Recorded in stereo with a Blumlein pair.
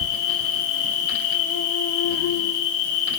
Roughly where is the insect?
Ahead left.